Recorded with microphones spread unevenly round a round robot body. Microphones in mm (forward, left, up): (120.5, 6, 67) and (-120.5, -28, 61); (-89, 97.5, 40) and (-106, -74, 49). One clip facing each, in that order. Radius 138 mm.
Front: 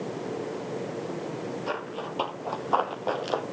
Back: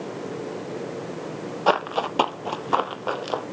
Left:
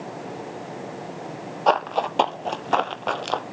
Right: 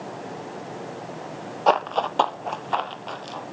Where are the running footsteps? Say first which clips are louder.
Back 8 dB, even; straight behind, 1.0 m; by 3.4 s 95° left, 1.0 m.